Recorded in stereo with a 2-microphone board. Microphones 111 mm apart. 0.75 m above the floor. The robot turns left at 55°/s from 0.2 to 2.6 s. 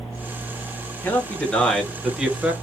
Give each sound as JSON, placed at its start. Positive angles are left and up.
{"t": 1.0, "sound": "a man speaking", "side_deg": 20, "distance_m": 0.9}